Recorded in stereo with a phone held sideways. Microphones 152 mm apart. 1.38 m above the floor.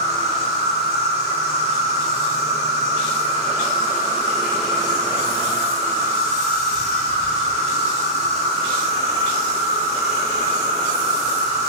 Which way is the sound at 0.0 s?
45° right (ahead or behind).